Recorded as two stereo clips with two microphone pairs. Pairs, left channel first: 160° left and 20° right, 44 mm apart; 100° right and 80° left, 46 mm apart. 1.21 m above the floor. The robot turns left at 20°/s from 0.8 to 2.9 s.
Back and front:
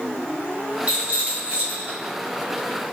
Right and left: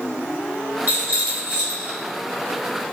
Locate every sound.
0.9 s a rattle: 40° left, 1.1 m; by 2.0 s 20° left, 1.1 m